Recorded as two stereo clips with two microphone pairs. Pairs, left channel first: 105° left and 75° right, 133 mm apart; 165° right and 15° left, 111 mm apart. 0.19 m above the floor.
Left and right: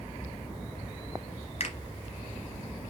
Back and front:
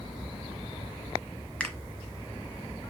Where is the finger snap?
115° left, 1.5 m.